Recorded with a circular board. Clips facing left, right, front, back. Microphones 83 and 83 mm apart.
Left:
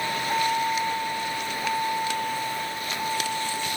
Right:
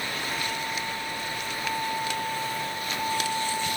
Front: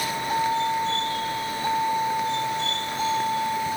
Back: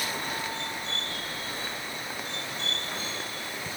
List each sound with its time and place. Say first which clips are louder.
0.0 s a vehicle: left 7 dB, front 9 dB; 50° left; by 3.8 s 5° right